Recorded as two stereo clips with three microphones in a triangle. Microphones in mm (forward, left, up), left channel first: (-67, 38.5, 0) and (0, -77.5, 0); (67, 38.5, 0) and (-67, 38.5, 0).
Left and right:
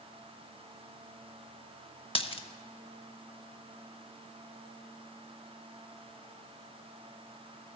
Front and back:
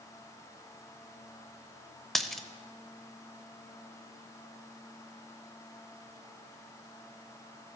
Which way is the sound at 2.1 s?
85° left.